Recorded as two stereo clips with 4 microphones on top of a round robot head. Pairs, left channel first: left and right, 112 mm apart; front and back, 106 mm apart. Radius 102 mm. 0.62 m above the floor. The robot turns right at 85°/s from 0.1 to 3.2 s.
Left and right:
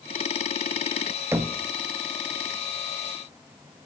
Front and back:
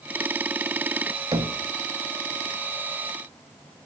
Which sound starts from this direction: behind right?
Knocking, at 1.3 s.